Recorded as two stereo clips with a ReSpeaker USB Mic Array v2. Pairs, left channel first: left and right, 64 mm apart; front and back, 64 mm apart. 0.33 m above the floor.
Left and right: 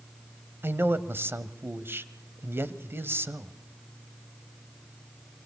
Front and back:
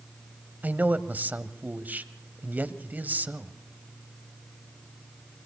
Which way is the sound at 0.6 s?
130° right.